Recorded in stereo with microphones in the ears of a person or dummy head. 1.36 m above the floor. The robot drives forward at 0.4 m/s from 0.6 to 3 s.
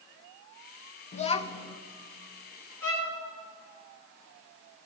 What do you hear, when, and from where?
1.1 s a child speaking: 45° left (ahead or behind), 0.6 m; by 1.8 s 30° left (ahead or behind), 0.8 m
2.8 s a violin: 15° left (ahead or behind), 2.5 m